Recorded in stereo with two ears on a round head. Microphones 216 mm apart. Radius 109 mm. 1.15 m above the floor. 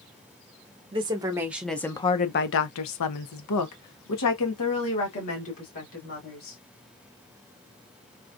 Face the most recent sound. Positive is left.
turn(degrees=65)  # may be behind; listen again after turning